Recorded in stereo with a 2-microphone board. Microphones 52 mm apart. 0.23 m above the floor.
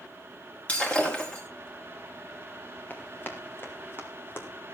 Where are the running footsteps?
35° left (ahead or behind), 4.5 m; by 4.5 s 45° left (ahead or behind), 3.5 m.